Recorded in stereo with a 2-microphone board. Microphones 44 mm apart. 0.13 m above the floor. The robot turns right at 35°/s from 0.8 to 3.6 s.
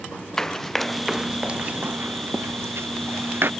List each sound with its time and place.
0.4 s running footsteps: 15° left (ahead or behind); by 3.5 s 60° right (ahead or behind)